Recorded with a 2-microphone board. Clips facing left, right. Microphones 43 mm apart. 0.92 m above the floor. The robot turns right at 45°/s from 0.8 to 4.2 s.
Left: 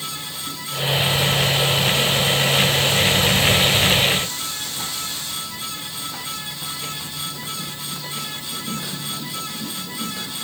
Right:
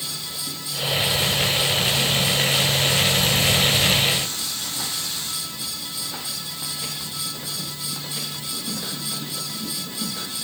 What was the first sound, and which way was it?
Only background noise.